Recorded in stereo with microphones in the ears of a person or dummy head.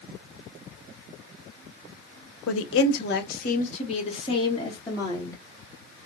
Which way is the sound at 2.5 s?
75° left (ahead or behind).